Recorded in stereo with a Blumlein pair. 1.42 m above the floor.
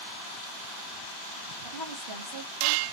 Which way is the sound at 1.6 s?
25° right.